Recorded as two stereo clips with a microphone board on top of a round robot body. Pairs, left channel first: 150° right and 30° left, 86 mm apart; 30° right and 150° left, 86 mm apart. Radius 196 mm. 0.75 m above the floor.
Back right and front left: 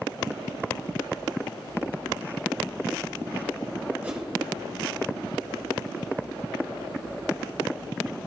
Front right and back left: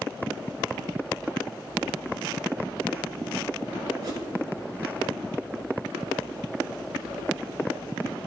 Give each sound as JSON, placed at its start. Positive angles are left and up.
{"t": 4.0, "sound": "a whoosh", "azimuth_deg": 100, "distance_m": 2.5}